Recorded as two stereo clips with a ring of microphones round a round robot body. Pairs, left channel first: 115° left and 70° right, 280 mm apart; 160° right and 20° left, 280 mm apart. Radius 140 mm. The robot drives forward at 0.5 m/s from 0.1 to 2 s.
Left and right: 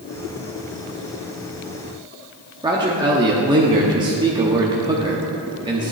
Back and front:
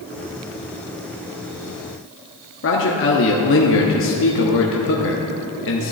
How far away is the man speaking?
About 1.0 m.